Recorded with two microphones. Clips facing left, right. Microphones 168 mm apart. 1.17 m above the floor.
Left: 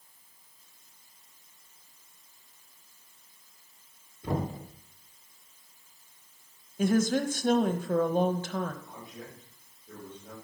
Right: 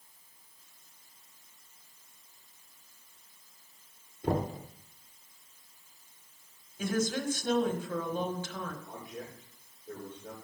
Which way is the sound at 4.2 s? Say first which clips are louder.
Right 1 dB; 65° right (ahead or behind).